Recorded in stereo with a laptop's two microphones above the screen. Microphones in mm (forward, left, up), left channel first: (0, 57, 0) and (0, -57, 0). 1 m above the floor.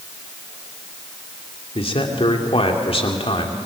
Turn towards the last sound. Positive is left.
turn(degrees=55)  # may be behind; listen again after turning